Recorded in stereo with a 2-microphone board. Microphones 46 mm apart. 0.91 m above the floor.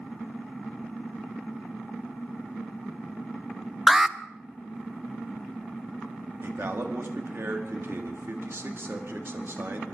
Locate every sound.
3.9 s an alarm: 10° right (ahead or behind), 0.5 m
6.4 s a man speaking: 60° right (ahead or behind), 1.9 m